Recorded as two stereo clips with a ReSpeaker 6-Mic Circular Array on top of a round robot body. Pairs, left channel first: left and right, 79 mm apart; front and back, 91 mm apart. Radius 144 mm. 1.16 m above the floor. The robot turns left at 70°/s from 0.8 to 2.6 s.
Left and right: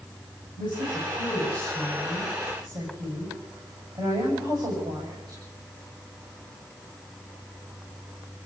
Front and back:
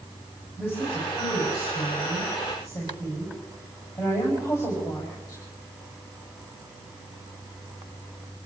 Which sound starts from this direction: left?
A woman speaking, at 0.6 s.